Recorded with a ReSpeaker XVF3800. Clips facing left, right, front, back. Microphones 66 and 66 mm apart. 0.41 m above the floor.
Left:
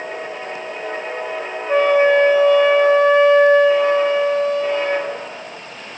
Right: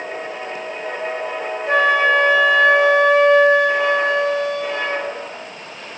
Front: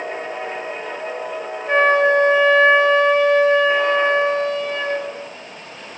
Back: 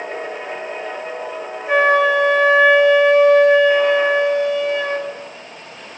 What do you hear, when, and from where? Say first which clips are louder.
1.7 s a flute: left 2 dB, back 1 dB; 95° right, 5.5 m